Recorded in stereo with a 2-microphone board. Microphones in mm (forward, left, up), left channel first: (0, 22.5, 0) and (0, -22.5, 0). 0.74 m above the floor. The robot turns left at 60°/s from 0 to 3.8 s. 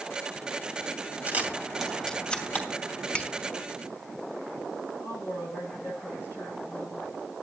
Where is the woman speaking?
70° left (ahead or behind), 10 m.